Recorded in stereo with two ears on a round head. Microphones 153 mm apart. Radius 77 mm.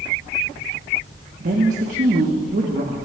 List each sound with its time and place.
1.4 s a woman speaking: 50° right (ahead or behind), 1.2 m